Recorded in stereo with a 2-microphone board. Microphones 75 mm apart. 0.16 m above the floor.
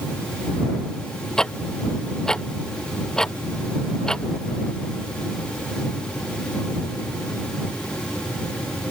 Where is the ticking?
10° left (ahead or behind).